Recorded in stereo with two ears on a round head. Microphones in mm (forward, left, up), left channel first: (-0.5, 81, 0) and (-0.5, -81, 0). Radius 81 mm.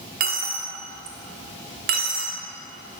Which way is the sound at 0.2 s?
50° right (ahead or behind).